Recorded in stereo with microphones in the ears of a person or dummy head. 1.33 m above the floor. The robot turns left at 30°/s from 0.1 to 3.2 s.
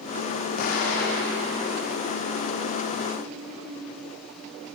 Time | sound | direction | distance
0.6 | an explosion | 45° left (ahead or behind) | 0.6 m